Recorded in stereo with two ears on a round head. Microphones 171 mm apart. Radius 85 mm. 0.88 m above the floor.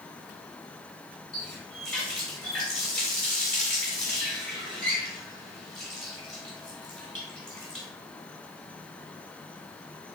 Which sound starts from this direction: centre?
A running tap, at 1.3 s.